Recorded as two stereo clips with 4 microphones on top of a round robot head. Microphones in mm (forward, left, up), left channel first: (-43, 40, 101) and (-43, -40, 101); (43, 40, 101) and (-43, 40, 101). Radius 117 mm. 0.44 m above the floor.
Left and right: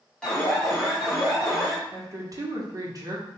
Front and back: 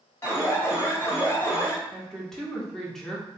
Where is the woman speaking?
85° right, 1.2 m.